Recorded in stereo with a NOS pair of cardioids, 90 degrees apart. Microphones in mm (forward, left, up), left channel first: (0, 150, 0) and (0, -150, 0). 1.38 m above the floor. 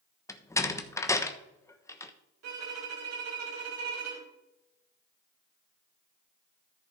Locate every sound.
0.3 s a door slam: 10° left, 1.0 m
2.4 s a violin: 60° right, 3 m